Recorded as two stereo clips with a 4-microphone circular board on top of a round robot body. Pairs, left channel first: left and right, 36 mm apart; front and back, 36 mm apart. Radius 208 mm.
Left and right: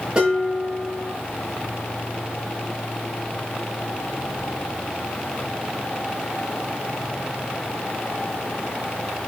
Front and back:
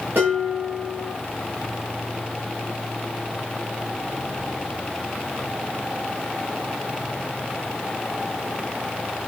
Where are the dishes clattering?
160° right, 5 m.